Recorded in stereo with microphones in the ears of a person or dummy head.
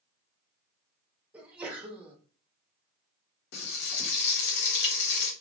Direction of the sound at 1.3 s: 10° right (ahead or behind).